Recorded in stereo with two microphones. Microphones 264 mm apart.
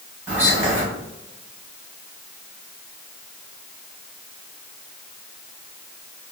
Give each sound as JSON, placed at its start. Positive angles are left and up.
{"t": 0.3, "sound": "whispering", "side_deg": -10, "distance_m": 1.3}